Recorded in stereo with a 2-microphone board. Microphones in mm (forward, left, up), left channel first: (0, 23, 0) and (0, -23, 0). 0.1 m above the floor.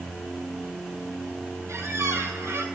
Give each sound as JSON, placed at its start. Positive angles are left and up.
{"t": 1.7, "sound": "a squeak", "side_deg": -70, "distance_m": 1.0}